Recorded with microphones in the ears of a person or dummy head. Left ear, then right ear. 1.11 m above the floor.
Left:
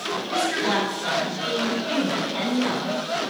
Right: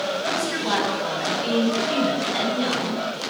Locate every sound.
0.3 s a woman speaking: 15° left (ahead or behind), 4.5 m; by 3.2 s 25° right (ahead or behind), 6 m